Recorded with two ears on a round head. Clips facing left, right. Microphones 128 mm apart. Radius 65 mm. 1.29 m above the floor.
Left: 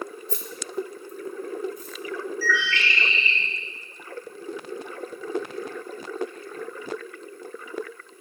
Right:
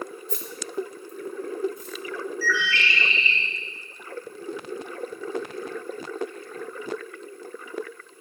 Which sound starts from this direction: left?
Keys jangling, at 0.3 s.